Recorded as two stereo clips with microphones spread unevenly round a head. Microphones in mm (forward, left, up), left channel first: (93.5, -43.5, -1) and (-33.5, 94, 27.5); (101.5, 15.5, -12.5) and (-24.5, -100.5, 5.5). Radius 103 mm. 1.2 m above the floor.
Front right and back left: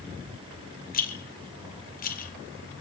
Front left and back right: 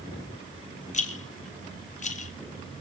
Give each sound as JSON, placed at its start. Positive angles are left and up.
{"t": 0.9, "sound": "a rattle", "azimuth_deg": -5, "distance_m": 2.0}